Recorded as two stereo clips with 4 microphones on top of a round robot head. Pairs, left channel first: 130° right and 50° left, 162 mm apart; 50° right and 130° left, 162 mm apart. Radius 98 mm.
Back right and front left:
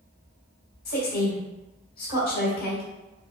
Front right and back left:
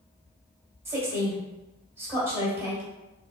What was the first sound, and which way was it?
A woman speaking, 155° right.